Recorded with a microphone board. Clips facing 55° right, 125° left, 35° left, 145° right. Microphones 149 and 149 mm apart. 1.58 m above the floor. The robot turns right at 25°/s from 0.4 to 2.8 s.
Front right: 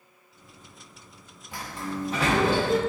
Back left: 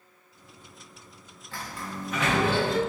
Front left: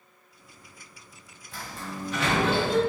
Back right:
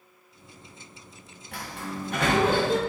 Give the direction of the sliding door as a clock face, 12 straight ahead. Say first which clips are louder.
Front right 4 dB, back right 2 dB; 4 o'clock.